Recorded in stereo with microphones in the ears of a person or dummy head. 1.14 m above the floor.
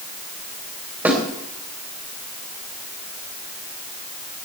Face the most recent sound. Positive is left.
turn(degrees=-10)  # may be behind; listen again after turning